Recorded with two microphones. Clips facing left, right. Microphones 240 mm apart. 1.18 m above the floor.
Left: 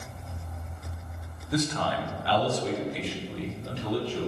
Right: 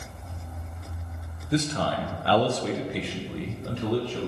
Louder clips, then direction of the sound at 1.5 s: Right 2 dB; 25° right (ahead or behind).